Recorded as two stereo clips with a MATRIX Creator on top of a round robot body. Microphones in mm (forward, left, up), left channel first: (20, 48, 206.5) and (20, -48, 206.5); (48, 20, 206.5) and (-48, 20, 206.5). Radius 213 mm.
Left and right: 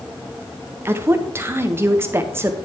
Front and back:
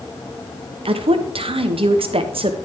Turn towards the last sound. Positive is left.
turn(degrees=-155)